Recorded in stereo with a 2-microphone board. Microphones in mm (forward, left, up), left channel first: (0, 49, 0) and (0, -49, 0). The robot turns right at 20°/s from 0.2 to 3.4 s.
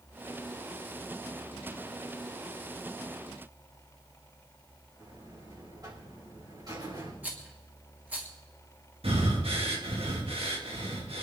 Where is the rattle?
15° right (ahead or behind), 3 m.